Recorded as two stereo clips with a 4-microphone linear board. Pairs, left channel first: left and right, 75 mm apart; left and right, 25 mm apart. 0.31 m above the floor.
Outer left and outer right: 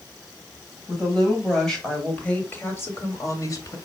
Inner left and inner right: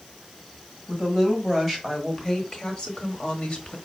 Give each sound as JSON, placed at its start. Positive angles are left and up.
{"t": 0.9, "sound": "a woman speaking", "side_deg": 0, "distance_m": 2.0}